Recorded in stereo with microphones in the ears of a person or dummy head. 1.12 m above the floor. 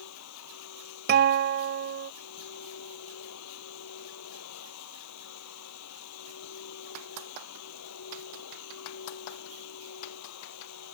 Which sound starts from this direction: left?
A machine running, at 0.0 s.